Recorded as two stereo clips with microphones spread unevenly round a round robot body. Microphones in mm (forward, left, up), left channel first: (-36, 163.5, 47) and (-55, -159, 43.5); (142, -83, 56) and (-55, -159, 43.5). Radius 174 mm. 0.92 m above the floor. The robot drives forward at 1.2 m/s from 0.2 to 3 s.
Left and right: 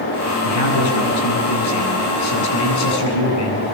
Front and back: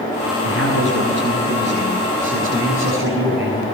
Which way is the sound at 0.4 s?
70° left.